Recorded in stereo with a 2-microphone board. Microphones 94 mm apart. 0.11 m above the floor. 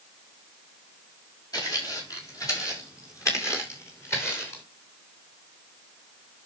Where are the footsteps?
40° left (ahead or behind), 7 m; by 4.6 s 25° left (ahead or behind), 6 m.